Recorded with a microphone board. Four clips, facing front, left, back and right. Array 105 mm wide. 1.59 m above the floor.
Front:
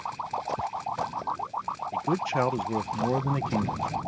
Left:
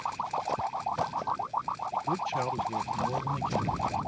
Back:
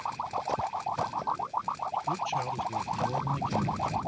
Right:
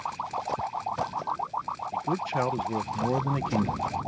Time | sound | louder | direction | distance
1.9 | a man speaking | right 3 dB, front 6 dB | 15° right | ?